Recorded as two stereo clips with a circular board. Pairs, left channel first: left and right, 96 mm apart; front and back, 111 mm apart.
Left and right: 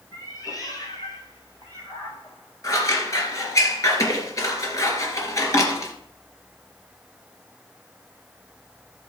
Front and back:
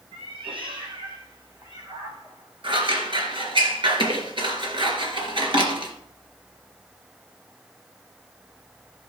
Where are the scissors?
140° left, 2.5 m.